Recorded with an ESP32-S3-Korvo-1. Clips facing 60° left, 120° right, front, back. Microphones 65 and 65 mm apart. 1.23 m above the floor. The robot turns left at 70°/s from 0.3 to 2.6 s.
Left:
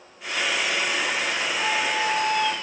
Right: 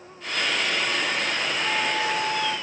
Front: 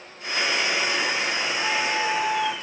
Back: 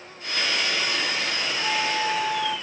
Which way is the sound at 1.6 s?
70° left.